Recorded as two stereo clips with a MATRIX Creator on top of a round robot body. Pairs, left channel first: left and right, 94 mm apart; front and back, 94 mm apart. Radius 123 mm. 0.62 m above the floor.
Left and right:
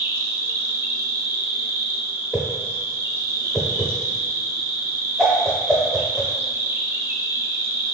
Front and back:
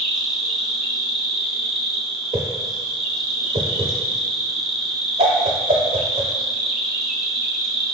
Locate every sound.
0.0 s an insect: 100° right, 0.9 m
2.3 s a whoosh: 175° right, 0.5 m